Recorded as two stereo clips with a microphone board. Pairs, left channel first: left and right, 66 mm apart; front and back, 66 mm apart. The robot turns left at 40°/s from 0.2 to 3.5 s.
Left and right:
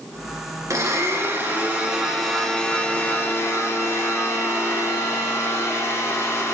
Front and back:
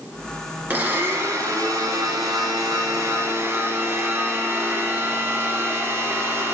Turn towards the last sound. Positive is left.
turn(degrees=130)